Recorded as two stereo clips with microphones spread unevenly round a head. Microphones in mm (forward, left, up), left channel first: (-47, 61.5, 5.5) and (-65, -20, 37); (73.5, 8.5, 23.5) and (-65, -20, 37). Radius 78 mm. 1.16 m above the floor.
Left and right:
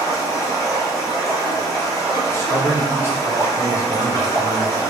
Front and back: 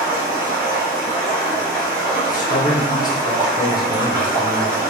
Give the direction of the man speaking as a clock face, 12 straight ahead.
10 o'clock.